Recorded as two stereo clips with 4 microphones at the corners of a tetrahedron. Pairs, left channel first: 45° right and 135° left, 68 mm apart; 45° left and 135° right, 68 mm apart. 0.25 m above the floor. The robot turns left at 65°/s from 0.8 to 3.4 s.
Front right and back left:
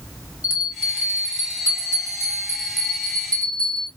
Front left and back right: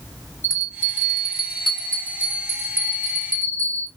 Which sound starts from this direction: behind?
A bell, at 0.4 s.